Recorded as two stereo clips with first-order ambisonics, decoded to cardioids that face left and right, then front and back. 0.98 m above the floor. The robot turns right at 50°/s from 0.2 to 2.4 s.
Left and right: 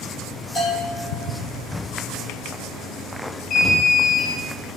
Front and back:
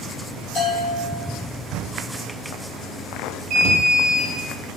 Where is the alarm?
150° left, 1.3 m.